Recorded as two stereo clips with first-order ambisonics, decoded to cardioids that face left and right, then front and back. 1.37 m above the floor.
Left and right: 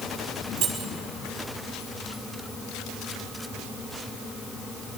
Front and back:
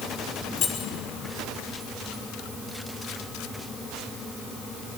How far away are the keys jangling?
About 3.5 m.